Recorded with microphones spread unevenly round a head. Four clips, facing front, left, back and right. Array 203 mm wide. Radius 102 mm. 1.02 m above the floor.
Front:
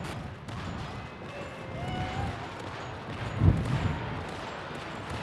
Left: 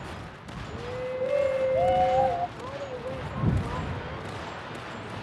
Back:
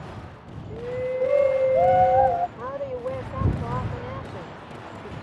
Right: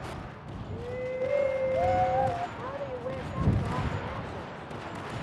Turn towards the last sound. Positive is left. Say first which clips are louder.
# even, back 10 dB
turn(degrees=180)